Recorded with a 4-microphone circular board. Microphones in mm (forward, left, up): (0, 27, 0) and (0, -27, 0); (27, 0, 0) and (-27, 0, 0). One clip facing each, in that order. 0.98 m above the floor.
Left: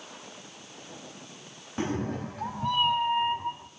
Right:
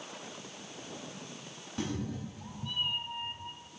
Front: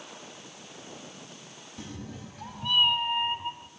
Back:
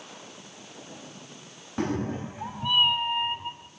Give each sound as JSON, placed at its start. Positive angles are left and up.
{"t": 1.8, "sound": "a cat meowing", "azimuth_deg": 145, "distance_m": 0.6}